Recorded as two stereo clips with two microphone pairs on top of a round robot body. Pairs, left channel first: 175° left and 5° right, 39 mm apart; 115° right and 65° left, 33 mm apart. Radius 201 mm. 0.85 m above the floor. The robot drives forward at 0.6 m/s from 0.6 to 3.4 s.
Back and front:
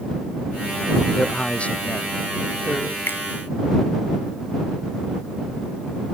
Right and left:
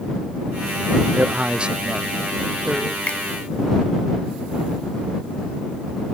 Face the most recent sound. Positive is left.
turn(degrees=-160)